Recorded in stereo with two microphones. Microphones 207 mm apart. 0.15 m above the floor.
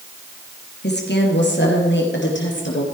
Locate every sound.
0.8 s a woman speaking: 55° left (ahead or behind), 3 m; by 2.8 s 60° left (ahead or behind), 4 m